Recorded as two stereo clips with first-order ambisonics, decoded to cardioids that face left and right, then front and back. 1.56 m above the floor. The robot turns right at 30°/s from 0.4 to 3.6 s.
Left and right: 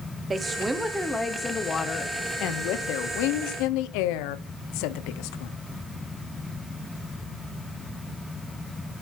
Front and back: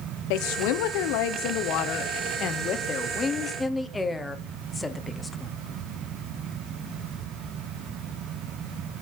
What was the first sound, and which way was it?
A woman speaking, 15° right.